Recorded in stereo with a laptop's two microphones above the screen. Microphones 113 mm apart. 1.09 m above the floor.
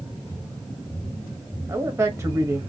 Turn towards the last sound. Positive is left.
turn(degrees=-25)  # may be behind; listen again after turning